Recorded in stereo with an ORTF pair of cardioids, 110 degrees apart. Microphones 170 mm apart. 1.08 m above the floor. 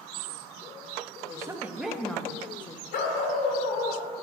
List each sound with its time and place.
1.3 s a woman speaking: 20° right, 1.4 m; by 2.8 s 35° left, 1.3 m
2.9 s a dog barking: 70° left, 1.5 m